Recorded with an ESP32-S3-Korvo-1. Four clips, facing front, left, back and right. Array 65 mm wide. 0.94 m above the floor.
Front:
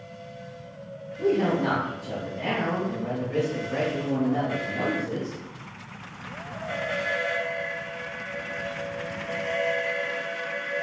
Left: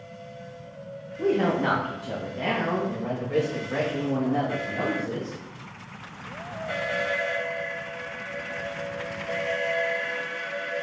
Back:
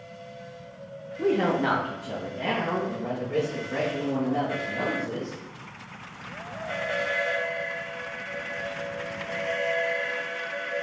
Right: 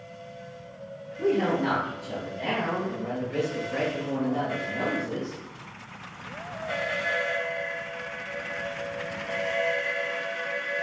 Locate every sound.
1.2 s a woman speaking: 175° left, 0.8 m; by 5.4 s 75° left, 2 m